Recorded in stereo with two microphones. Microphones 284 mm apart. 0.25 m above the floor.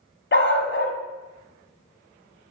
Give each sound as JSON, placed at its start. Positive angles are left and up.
{"t": 0.3, "sound": "a dog barking", "side_deg": 40, "distance_m": 0.9}